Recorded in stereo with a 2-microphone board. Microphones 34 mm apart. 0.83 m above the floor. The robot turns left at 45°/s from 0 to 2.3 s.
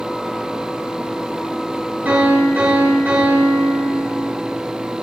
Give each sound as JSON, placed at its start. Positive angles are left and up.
{"t": 2.0, "sound": "a piano", "side_deg": -85, "distance_m": 5.0}